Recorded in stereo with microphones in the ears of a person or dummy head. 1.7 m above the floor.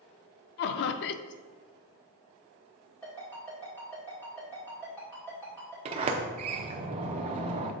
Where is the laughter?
60° left (ahead or behind), 0.5 m.